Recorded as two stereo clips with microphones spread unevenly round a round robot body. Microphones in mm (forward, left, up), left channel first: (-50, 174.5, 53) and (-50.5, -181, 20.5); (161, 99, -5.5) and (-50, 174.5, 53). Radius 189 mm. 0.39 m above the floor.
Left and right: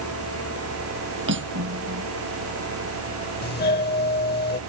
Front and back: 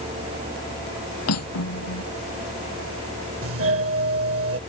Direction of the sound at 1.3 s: 30° right.